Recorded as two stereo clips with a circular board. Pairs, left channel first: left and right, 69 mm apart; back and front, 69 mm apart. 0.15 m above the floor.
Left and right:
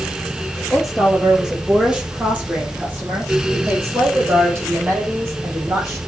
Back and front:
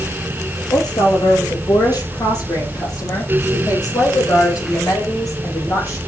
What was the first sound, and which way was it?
A woman speaking, 175° right.